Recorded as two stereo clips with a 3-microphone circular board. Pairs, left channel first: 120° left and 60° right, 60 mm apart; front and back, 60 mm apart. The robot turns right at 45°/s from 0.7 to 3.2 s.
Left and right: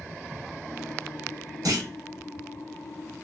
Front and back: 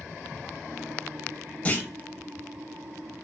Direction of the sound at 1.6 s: 65° right.